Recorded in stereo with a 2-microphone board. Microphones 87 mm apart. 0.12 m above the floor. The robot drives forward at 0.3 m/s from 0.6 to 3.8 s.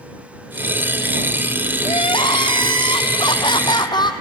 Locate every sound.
1.9 s crying: 70° left (ahead or behind), 0.7 m; by 4.1 s 60° left (ahead or behind), 0.7 m